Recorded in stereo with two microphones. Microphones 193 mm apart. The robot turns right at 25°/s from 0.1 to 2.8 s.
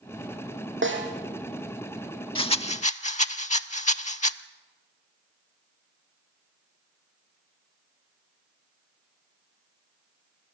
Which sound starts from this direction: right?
A snare drum, at 0.8 s.